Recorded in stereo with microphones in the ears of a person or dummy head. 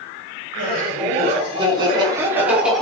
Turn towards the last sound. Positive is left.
turn(degrees=0)  # may be behind; listen again after turning